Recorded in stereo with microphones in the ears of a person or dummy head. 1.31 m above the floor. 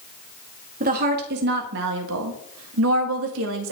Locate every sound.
0.8 s a woman speaking: 45° right (ahead or behind), 1.6 m; by 3.7 s 65° right (ahead or behind), 1.4 m